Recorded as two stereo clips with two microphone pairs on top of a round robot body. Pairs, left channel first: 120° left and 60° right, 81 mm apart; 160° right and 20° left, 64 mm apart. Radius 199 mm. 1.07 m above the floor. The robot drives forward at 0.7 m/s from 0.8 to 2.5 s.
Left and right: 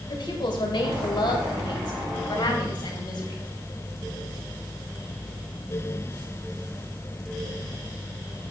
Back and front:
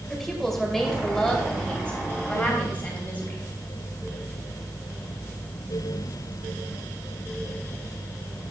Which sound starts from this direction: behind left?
A woman speaking, at 0.1 s.